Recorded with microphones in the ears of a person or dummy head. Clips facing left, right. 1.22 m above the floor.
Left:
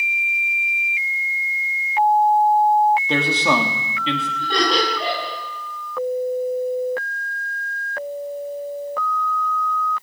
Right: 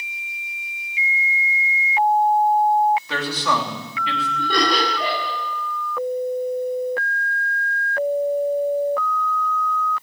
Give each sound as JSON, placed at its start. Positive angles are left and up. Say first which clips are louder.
{"t": 3.1, "sound": "a man speaking", "louder": "left 4 dB", "side_deg": 20, "distance_m": 3.0}
{"t": 4.4, "sound": "laughter", "louder": "even", "side_deg": -85, "distance_m": 9.5}